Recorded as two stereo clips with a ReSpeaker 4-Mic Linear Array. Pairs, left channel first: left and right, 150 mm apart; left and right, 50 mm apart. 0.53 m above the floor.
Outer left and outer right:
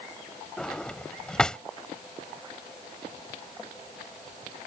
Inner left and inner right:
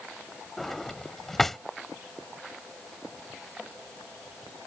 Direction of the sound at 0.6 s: 5° left (ahead or behind).